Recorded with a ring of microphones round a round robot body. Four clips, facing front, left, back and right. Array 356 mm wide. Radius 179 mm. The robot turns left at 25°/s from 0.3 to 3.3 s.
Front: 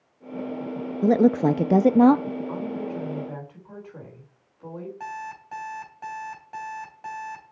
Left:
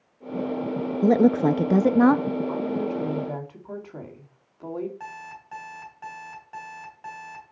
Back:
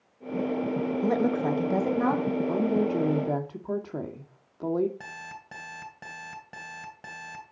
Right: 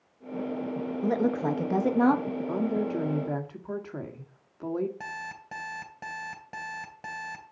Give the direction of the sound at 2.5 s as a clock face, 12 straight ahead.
5 o'clock.